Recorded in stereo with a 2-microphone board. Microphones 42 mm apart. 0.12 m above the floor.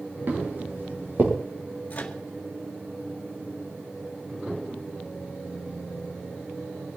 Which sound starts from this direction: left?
A microwave, at 1.9 s.